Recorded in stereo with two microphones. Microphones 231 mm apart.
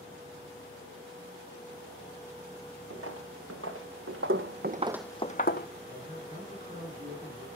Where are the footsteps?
85° right, 3 m; by 5.7 s 50° left (ahead or behind), 1.2 m.